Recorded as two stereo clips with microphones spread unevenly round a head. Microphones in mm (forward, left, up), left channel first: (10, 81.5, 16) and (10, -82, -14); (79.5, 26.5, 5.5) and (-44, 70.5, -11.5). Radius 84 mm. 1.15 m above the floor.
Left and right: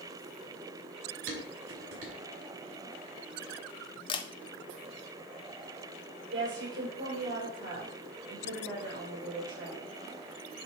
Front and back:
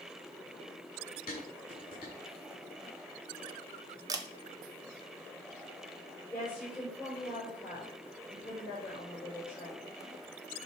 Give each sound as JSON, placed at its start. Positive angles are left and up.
{"t": 1.3, "sound": "dishes clattering", "azimuth_deg": -80, "distance_m": 4.5}
{"t": 4.1, "sound": "a camera shutter", "azimuth_deg": 150, "distance_m": 0.7}
{"t": 6.3, "sound": "a woman speaking", "azimuth_deg": -95, "distance_m": 4.0}